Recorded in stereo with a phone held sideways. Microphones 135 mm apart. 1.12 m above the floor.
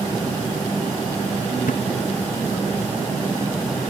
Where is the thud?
80° left.